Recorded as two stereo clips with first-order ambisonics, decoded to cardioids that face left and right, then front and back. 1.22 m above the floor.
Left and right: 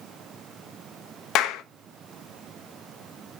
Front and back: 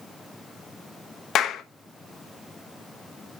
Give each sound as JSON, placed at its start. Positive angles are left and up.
{"t": 1.4, "sound": "a clap", "azimuth_deg": 50, "distance_m": 0.8}